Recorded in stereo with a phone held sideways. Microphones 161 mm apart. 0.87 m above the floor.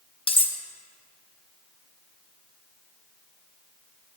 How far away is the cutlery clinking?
About 0.6 m.